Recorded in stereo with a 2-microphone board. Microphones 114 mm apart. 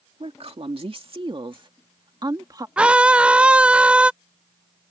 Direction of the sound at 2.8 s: 10° right (ahead or behind).